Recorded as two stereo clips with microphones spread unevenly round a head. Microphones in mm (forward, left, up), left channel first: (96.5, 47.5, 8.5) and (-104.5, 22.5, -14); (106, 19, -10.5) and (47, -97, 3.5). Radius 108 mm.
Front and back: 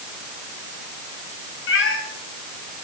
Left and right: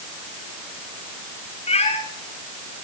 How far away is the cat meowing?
About 5 m.